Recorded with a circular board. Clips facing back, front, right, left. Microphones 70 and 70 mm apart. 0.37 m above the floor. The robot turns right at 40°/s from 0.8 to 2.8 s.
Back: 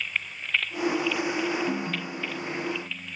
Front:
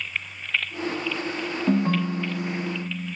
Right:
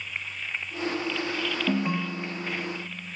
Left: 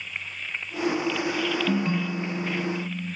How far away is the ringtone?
About 0.5 m.